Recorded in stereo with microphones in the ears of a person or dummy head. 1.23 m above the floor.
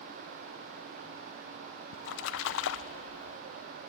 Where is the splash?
80° left, 0.7 m.